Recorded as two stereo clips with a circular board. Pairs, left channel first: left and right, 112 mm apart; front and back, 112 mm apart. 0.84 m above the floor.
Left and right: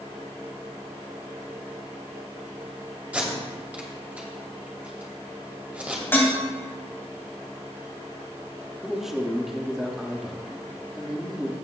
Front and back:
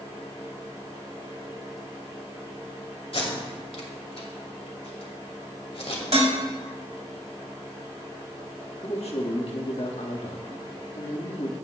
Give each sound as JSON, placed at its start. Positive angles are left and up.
{"t": 3.1, "sound": "tape being pulled", "azimuth_deg": -15, "distance_m": 2.5}
{"t": 6.1, "sound": "dishes clattering", "azimuth_deg": 160, "distance_m": 3.0}
{"t": 8.8, "sound": "a man speaking", "azimuth_deg": -5, "distance_m": 1.5}